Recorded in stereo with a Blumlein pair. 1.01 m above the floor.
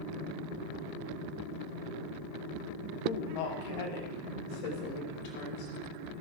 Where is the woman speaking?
55° left, 2.0 m; by 5.7 s 50° left, 4.5 m.